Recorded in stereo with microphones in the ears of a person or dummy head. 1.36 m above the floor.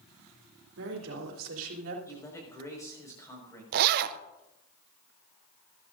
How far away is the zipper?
About 0.6 m.